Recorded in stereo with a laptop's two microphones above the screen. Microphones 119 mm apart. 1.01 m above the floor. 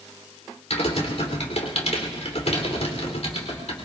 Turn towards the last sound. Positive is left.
turn(degrees=65)  # may be behind; listen again after turning